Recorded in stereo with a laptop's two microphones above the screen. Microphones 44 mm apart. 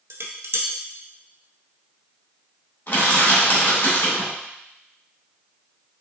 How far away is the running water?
I don't hear running water.